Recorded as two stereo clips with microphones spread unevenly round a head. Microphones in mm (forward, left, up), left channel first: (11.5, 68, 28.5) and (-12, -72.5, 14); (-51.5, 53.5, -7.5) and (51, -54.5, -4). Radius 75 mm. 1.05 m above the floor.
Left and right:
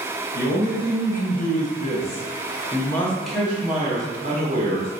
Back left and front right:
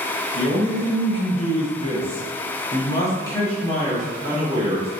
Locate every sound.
0.3 s a man speaking: 85° left, 1.6 m; by 4.9 s 130° right, 1.2 m